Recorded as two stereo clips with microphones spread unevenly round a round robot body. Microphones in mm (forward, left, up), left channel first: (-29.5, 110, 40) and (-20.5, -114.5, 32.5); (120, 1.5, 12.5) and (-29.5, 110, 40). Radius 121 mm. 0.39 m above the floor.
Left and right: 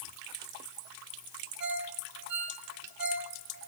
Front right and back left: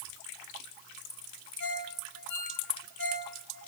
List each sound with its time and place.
1.6 s a ringtone: 50° right, 2 m